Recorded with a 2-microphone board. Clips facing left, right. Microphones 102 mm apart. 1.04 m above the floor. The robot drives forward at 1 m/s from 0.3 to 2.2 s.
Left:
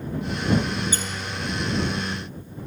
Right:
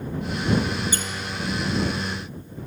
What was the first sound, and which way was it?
A squeak, 30° left (ahead or behind).